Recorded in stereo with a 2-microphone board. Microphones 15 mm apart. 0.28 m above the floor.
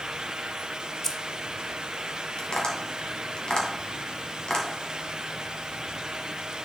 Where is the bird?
No bird in this recording.